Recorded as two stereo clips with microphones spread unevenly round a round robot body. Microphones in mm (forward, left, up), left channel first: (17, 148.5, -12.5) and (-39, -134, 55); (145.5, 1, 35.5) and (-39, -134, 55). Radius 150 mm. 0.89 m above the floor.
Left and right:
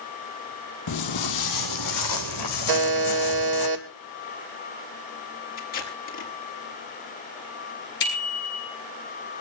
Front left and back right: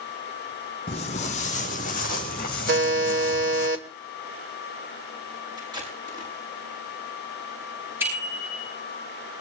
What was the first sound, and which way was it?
Footsteps, 105° left.